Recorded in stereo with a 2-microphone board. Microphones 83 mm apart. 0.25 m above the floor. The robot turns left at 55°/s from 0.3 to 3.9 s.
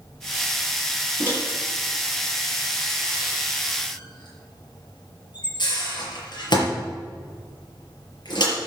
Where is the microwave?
30° right (ahead or behind), 5.5 m; by 8.5 s 60° left (ahead or behind), 5.5 m.